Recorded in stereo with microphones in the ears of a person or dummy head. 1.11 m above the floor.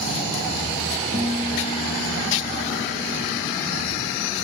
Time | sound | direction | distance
1.1 | a guitar | 20° left (ahead or behind) | 3.5 m